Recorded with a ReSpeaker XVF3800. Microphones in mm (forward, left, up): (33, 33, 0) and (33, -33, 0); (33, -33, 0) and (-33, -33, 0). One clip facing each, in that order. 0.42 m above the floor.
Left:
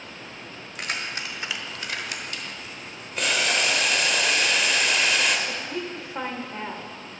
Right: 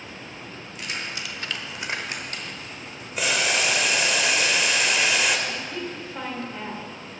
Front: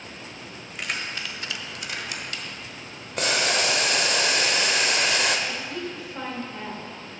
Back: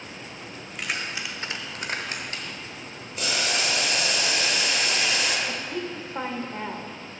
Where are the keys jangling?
90° left, 1.3 m; by 2.8 s 120° right, 2 m.